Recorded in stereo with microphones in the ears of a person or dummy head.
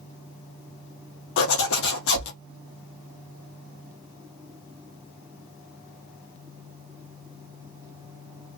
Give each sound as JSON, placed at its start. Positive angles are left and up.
{"t": 1.4, "sound": "a zipper", "side_deg": 70, "distance_m": 0.7}